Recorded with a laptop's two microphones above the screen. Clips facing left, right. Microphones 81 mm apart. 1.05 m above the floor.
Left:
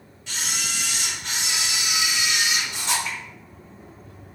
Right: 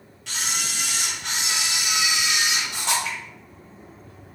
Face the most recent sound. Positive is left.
turn(degrees=-65)  # may be behind; listen again after turning